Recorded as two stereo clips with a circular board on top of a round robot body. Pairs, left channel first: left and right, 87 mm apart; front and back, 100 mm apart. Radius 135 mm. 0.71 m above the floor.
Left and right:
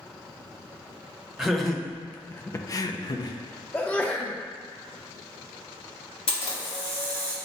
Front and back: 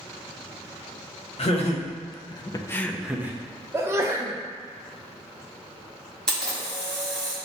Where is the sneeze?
145° left, 0.6 m.